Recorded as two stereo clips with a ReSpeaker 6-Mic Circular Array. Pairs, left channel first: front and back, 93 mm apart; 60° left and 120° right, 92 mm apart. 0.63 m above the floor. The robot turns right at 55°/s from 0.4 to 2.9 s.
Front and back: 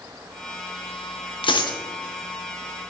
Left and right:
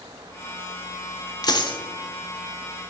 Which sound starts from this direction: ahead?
A dropped coin, at 1.4 s.